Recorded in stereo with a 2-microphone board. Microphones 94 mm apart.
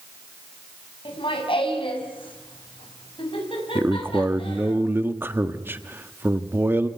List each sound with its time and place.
1.1 s laughter: 70° left (ahead or behind), 5 m; by 4.8 s 75° left (ahead or behind), 4.5 m
3.8 s a man speaking: 25° right (ahead or behind), 1.3 m